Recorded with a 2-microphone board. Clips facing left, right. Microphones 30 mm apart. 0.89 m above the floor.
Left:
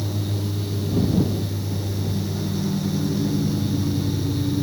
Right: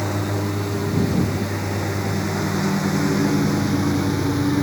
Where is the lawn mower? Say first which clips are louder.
Right 5 dB; 85° right; by 4.6 s 90° right.